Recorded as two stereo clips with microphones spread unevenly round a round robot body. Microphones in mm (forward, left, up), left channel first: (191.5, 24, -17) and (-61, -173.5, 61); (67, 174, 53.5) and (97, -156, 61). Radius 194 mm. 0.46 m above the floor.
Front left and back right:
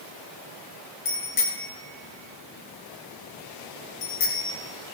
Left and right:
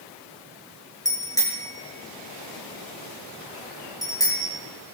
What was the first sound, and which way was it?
A bicycle bell, 15° left.